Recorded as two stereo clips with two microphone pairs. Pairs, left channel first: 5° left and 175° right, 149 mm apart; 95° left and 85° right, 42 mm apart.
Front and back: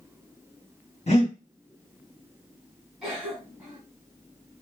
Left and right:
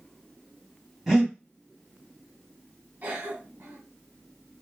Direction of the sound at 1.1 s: 5° right.